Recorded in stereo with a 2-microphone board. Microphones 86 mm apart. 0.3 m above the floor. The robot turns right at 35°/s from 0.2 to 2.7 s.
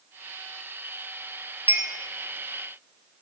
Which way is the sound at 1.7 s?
25° right (ahead or behind).